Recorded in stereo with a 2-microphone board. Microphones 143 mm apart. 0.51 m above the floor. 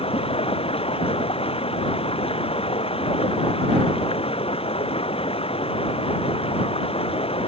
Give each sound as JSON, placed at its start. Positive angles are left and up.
{"t": 0.0, "sound": "running water", "side_deg": 40}